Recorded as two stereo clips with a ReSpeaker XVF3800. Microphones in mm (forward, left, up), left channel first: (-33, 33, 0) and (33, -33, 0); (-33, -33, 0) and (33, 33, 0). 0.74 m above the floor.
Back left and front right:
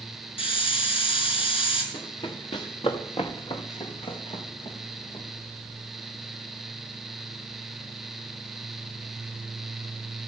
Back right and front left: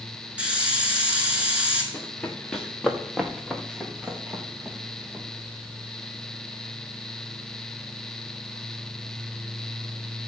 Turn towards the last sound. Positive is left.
turn(degrees=115)